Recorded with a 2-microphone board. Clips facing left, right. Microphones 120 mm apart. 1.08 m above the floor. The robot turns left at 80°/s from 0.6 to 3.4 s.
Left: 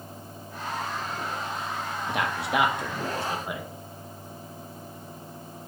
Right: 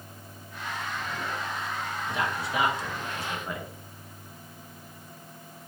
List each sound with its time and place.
2.1 s a man speaking: 60° left (ahead or behind), 1.0 m; by 3.7 s 15° left (ahead or behind), 1.0 m